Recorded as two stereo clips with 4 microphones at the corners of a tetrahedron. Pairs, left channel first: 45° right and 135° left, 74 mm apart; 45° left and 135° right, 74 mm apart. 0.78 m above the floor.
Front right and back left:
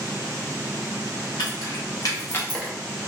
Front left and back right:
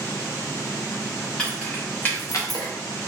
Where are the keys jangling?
35° right, 1.3 m; by 2.7 s 50° left, 0.5 m.